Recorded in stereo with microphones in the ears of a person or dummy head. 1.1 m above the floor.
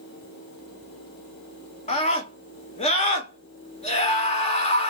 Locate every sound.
1.9 s a scream: 30° left (ahead or behind), 1.0 m